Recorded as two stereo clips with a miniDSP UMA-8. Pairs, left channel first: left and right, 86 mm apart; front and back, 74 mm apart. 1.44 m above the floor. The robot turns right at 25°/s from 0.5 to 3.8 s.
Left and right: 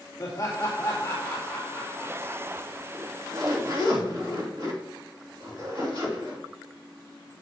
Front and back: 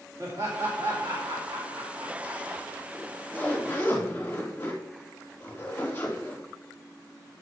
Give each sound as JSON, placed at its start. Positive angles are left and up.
{"t": 0.2, "sound": "laughter", "azimuth_deg": 135, "distance_m": 2.0}
{"t": 2.9, "sound": "a zipper", "azimuth_deg": -75, "distance_m": 3.0}